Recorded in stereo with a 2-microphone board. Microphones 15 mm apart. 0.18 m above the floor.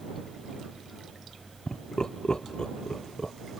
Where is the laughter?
55° left (ahead or behind); by 3.3 s 65° left (ahead or behind).